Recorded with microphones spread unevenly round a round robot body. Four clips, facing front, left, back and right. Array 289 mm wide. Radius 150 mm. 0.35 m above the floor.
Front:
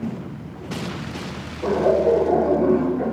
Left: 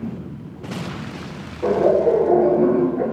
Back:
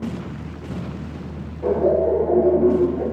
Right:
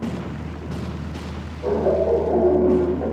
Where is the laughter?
65° left, 7.5 m.